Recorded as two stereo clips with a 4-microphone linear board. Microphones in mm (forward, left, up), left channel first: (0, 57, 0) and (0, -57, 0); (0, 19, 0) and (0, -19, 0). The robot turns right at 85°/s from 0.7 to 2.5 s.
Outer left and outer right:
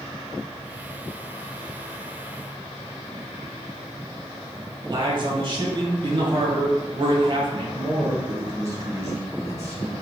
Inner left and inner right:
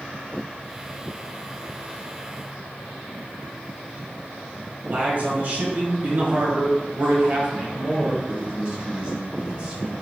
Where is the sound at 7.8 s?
30° right (ahead or behind), 0.9 m.